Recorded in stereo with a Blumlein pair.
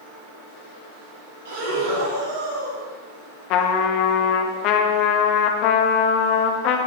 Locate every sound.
1.4 s breathing: 50° right, 3.5 m
3.5 s a trumpet: 40° left, 1.1 m